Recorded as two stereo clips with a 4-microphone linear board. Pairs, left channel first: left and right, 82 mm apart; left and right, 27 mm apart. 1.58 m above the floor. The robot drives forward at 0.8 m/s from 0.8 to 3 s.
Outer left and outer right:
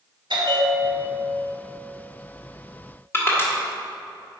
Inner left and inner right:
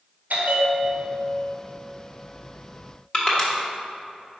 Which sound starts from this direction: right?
A bell, at 0.3 s.